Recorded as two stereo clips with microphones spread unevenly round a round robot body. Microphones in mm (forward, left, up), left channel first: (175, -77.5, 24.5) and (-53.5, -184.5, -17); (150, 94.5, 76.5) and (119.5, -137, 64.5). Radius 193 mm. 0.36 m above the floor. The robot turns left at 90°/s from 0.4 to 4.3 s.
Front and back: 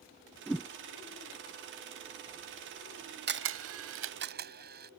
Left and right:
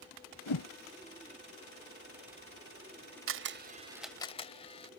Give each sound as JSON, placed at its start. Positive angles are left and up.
{"t": 0.5, "sound": "a whoosh", "azimuth_deg": 115}
{"t": 3.3, "sound": "a camera shutter", "azimuth_deg": -115}